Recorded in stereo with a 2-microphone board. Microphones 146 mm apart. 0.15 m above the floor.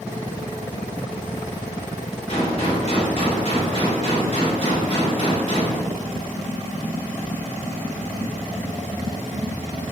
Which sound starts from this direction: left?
A gunshot, at 2.3 s.